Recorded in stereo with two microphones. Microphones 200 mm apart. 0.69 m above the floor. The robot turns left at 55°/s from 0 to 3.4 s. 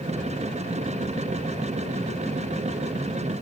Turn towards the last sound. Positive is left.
No sound to turn to.